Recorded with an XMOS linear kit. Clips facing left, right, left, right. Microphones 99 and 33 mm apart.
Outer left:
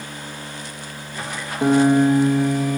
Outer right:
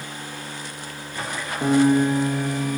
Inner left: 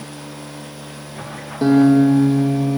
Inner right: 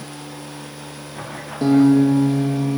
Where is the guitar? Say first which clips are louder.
Outer left 3 dB, inner left 1 dB; 15° left (ahead or behind), 1.2 m.